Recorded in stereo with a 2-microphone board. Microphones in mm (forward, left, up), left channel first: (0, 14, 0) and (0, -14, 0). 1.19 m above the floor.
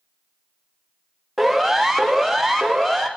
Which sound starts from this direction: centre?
A siren, at 1.4 s.